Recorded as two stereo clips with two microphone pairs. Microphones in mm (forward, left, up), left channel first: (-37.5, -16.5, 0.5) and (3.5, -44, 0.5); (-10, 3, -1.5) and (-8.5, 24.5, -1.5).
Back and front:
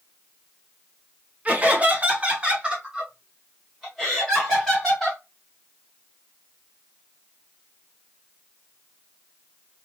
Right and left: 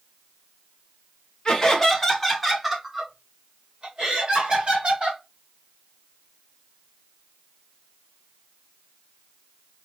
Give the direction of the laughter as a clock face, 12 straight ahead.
2 o'clock.